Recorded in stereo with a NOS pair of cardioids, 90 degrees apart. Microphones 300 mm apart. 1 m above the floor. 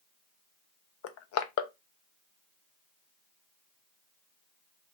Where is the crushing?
55° left, 0.5 m.